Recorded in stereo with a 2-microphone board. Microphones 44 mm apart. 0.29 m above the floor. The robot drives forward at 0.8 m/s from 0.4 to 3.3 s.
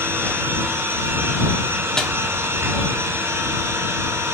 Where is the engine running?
60° right (ahead or behind), 3.5 m; by 4.3 s 65° right (ahead or behind), 3.5 m.